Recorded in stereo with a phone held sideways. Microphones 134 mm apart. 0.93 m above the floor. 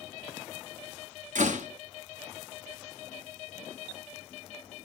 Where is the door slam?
75° right (ahead or behind), 1.3 m.